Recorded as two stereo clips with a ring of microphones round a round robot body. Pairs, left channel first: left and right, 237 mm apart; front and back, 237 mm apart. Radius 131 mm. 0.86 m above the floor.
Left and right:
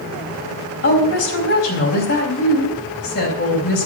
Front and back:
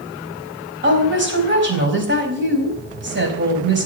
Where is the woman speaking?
140° left, 4.5 m.